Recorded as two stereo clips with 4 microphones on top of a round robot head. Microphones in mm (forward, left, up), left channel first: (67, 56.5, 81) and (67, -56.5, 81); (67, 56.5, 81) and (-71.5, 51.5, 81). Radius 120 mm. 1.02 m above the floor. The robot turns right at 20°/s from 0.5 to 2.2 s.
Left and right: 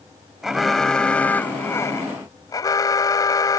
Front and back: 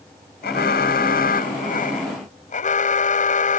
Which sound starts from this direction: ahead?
An alarm, at 0.4 s.